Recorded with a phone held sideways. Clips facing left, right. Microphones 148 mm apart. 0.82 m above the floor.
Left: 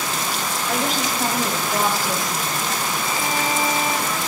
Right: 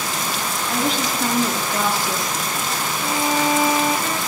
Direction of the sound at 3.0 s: 70° right (ahead or behind).